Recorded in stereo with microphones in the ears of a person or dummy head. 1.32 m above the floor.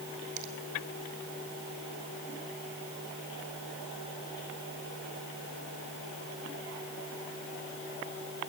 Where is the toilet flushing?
I don't hear a toilet flushing.